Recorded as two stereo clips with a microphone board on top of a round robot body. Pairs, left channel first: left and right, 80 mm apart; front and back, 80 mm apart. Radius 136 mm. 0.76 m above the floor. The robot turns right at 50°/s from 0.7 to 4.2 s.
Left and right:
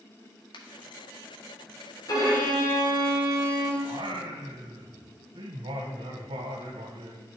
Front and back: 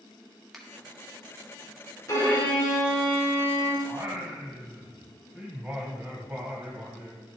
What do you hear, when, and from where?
0.5 s a finger snap: 90° left, 2.0 m
2.1 s a violin: 50° left, 3 m; by 3.7 s 130° left, 3 m
3.8 s singing: 125° right, 1.2 m; by 7.3 s 105° right, 1.2 m